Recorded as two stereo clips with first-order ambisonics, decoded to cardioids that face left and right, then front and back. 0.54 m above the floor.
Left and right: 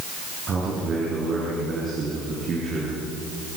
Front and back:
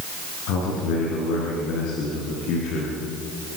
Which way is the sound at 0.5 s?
25° right.